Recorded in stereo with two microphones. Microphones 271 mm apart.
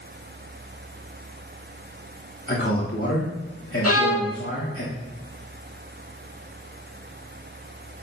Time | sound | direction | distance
2.5 | a man speaking | 55° left (ahead or behind) | 3 m
3.8 | a violin | 65° left (ahead or behind) | 2 m